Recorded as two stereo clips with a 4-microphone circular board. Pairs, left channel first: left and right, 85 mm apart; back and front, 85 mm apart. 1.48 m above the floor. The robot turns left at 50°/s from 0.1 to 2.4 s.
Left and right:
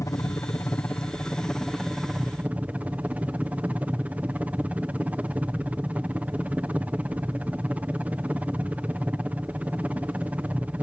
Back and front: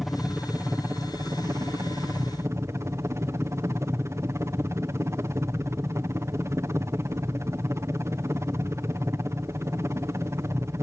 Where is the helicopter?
85° left; by 10.8 s 30° right.